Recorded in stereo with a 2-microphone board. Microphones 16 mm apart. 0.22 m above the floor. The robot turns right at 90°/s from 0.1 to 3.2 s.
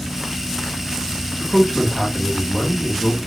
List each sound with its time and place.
1.4 s a man speaking: 20° left (ahead or behind), 1.5 m; by 3.2 s 15° right (ahead or behind), 1.5 m